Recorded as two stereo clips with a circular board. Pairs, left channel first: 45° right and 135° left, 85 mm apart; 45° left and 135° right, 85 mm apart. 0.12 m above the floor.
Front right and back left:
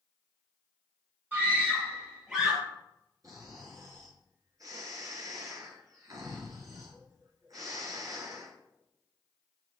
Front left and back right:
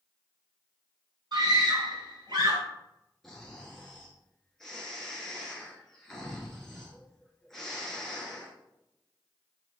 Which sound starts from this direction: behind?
A scream, at 1.3 s.